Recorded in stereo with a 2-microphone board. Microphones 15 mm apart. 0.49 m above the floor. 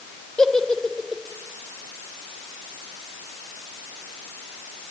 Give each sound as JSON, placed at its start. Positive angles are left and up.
{"t": 0.4, "sound": "a giggle", "side_deg": 50, "distance_m": 2.0}